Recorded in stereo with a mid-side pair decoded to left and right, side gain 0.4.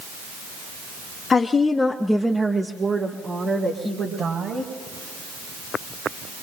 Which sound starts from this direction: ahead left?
A woman speaking, at 1.3 s.